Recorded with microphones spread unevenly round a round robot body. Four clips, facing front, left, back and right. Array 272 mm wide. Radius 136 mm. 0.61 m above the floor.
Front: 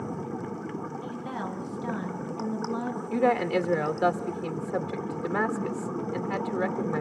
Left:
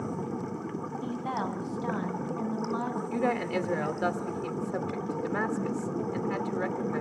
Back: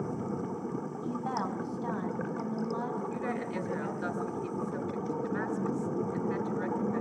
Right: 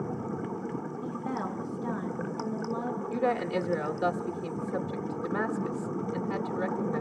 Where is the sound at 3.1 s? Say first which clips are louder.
Right 1 dB, front 10 dB; 10° left, 1.6 m.